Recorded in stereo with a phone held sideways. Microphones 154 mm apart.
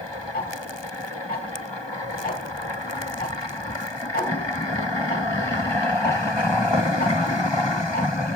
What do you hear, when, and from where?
0.3 s ticking: 75° left (ahead or behind), 4 m